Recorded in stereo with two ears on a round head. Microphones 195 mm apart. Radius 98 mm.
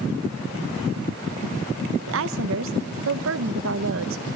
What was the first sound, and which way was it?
A woman speaking, 65° right (ahead or behind).